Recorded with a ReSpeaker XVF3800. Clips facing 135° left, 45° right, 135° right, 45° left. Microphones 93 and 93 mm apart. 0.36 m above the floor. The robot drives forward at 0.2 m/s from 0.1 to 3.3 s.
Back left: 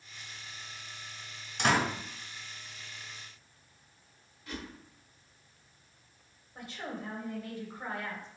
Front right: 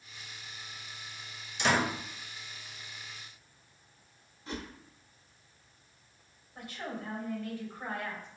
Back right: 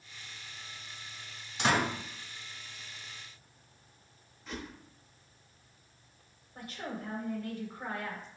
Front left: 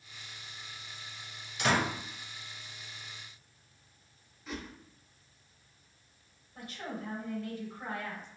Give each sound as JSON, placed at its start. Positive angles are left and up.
{"t": 1.6, "sound": "a door slam", "azimuth_deg": 170, "distance_m": 1.7}
{"t": 4.5, "sound": "a whoosh", "azimuth_deg": -40, "distance_m": 0.6}
{"t": 6.5, "sound": "a woman speaking", "azimuth_deg": -165, "distance_m": 1.6}